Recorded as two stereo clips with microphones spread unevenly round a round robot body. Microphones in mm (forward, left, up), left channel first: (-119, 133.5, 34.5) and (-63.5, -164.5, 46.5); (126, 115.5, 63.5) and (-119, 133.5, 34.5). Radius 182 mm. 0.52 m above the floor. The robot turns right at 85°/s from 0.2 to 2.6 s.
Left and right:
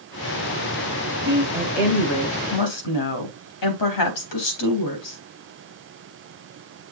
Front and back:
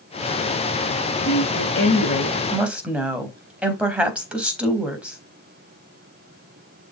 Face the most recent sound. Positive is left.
turn(degrees=90)